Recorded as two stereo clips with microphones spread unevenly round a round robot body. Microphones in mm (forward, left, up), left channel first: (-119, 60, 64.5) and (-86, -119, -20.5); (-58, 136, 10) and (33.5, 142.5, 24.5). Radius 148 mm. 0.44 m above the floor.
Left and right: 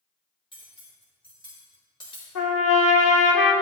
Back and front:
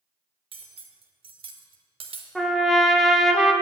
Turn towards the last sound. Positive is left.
turn(degrees=100)